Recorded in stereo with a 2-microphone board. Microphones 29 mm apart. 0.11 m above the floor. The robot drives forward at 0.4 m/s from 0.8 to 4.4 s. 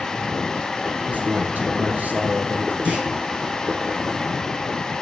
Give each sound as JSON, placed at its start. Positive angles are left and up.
{"t": 1.1, "sound": "a man speaking", "side_deg": -70, "distance_m": 3.5}
{"t": 2.9, "sound": "a clunk", "side_deg": -50, "distance_m": 3.0}